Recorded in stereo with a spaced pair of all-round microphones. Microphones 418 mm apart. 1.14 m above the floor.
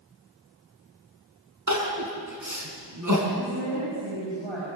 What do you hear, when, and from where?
1.7 s crying: 45° right (ahead or behind), 4 m
3.4 s a woman speaking: 85° right, 7 m